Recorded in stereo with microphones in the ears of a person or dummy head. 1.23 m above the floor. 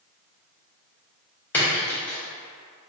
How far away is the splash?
About 0.7 m.